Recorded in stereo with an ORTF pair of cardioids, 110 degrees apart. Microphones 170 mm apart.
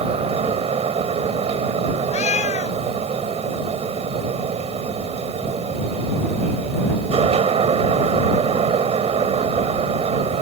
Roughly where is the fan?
Ahead right.